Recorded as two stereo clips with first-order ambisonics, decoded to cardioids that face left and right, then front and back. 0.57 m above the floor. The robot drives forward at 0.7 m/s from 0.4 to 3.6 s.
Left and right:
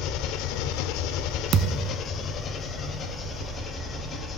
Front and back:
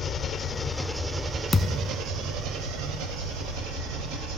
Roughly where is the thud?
Ahead right.